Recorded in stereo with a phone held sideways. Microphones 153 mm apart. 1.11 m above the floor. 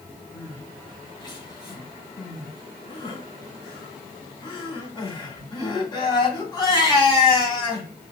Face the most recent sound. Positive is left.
turn(degrees=30)  # may be behind; listen again after turning